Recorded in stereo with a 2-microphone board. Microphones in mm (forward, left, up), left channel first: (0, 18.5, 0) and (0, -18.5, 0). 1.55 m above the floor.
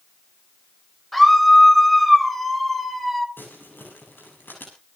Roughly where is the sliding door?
No sliding door in this recording.